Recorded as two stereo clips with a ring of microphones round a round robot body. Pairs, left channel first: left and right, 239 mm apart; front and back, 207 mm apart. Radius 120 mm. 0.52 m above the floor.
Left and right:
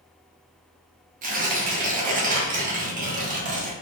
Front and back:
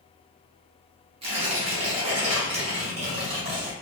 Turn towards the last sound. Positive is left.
turn(degrees=-130)